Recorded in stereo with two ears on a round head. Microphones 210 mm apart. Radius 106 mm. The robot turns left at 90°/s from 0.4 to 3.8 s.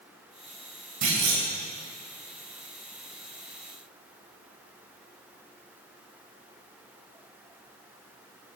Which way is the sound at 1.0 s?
75° right.